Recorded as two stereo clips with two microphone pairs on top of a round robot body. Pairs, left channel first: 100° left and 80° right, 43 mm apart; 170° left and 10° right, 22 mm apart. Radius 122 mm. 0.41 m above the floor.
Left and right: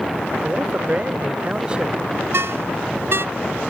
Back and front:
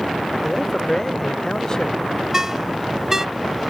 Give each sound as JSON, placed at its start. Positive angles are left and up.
{"t": 0.4, "sound": "a man speaking", "azimuth_deg": -120}
{"t": 2.3, "sound": "a ringtone", "azimuth_deg": -80}